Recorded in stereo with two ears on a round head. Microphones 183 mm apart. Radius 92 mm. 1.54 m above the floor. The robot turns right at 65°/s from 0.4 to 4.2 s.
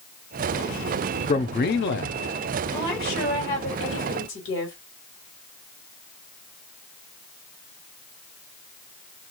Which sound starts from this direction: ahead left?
A man speaking, at 1.3 s.